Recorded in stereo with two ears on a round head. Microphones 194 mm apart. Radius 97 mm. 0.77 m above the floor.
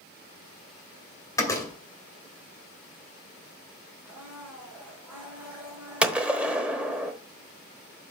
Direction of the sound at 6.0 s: 5° right (ahead or behind).